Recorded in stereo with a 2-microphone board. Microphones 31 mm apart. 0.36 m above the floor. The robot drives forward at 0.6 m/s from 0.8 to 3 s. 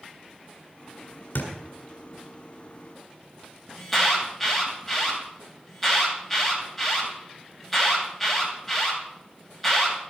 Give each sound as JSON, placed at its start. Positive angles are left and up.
{"t": 1.4, "sound": "a thud", "side_deg": 75, "distance_m": 1.8}
{"t": 3.8, "sound": "an alarm", "side_deg": 0, "distance_m": 2.5}